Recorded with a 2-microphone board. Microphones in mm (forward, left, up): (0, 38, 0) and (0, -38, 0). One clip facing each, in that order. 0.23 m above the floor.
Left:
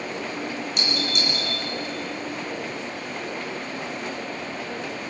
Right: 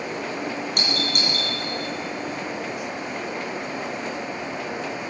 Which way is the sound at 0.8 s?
55° right (ahead or behind).